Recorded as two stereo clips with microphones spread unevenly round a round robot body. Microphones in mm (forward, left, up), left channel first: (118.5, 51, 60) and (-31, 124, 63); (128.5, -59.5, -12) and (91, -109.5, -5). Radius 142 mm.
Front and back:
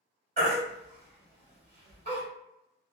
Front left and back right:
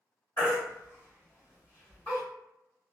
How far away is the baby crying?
About 1.9 m.